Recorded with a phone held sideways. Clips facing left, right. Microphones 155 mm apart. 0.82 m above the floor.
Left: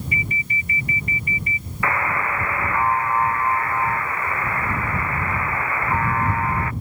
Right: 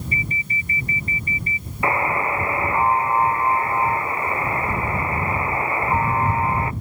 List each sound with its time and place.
0.1 s an alarm: 35° right (ahead or behind)
1.8 s a buzzer: 25° right (ahead or behind)